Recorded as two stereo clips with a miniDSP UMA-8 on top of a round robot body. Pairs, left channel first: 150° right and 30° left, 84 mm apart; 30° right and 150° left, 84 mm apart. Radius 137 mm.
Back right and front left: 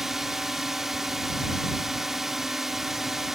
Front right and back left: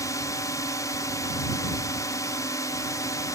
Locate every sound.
0.0 s a drone: 55° right